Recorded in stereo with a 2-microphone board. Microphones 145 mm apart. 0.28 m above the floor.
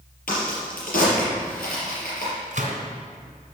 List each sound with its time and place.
0.3 s a crack: 80° left, 5 m
2.5 s a gunshot: 60° right (ahead or behind), 2.5 m